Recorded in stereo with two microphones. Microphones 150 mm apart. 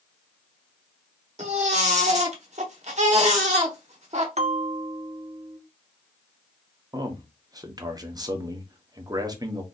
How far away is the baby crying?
About 1.0 m.